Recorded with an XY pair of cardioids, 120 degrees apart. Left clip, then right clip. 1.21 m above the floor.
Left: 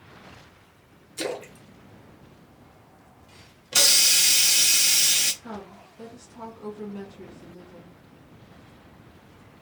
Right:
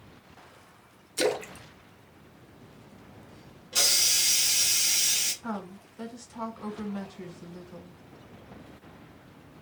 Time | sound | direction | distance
1.2 | a splash | 30° right | 0.5 m
3.7 | a hiss | 60° left | 0.5 m
5.4 | a woman speaking | 50° right | 1.1 m